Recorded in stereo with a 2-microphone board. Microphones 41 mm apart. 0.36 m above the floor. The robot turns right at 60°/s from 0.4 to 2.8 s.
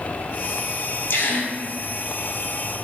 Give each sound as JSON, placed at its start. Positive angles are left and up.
{"t": 1.1, "sound": "a gasp", "side_deg": 70, "distance_m": 0.7}